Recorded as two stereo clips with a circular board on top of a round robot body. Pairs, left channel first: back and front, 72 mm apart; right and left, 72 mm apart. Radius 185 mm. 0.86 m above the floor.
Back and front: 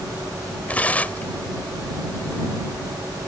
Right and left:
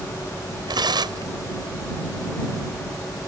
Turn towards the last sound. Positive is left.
turn(degrees=110)